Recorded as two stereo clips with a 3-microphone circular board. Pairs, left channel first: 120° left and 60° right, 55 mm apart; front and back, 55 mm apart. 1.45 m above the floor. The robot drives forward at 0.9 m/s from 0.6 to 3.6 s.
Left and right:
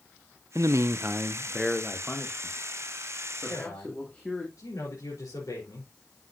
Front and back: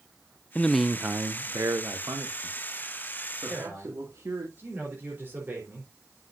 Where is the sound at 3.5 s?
125° left, 4 m.